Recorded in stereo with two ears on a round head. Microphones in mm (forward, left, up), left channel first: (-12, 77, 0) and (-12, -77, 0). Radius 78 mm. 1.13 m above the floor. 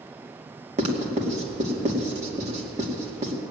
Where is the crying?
No crying in this recording.